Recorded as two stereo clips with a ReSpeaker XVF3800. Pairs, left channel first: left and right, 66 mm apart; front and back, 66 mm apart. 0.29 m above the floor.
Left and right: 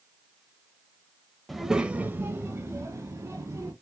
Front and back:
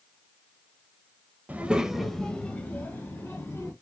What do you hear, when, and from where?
1.5 s a child speaking: straight behind, 0.5 m; by 3.7 s 55° right, 1.3 m